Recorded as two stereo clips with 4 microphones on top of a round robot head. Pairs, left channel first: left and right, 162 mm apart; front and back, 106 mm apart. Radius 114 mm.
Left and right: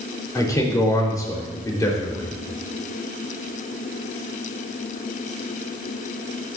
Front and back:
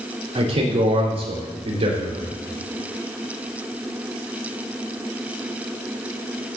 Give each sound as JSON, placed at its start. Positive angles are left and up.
{"t": 0.3, "sound": "a man speaking", "azimuth_deg": 160, "distance_m": 3.5}